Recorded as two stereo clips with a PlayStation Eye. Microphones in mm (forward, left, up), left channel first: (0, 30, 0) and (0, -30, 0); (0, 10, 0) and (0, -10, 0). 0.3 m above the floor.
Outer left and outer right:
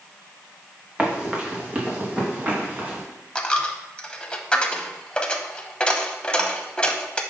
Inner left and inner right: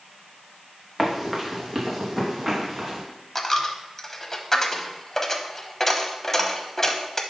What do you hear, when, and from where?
1.0 s running footsteps: 20° right (ahead or behind), 2 m; by 3.0 s 30° right (ahead or behind), 3.5 m
3.4 s a dropped coin: 20° left (ahead or behind), 0.8 m